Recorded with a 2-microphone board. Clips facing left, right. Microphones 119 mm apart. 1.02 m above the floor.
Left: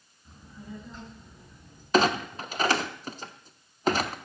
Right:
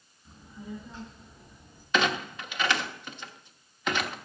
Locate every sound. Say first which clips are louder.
0.2 s a child speaking: right 2 dB; centre (ahead or behind), 7 m; by 1.8 s 5° right (ahead or behind), 6 m
1.9 s a clunk: left 4 dB; 40° left (ahead or behind), 0.9 m